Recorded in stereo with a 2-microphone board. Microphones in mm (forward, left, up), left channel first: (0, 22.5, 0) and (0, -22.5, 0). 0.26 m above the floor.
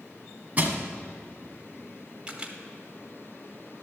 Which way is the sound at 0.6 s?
35° right (ahead or behind).